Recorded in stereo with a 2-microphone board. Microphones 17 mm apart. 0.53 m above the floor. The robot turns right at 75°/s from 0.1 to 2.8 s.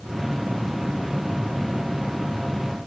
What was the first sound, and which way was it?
Only background noise.